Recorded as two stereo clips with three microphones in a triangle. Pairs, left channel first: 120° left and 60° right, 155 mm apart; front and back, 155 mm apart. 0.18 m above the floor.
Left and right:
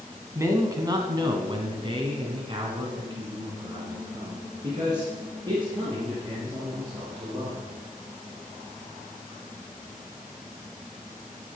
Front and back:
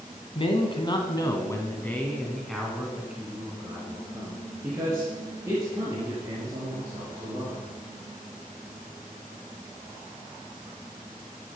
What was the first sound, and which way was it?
A man speaking, straight ahead.